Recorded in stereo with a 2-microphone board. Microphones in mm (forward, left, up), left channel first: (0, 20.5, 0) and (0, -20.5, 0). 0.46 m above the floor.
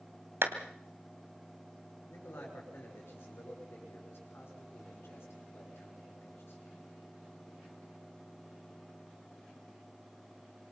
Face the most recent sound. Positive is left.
turn(degrees=70)  # may be behind; listen again after turning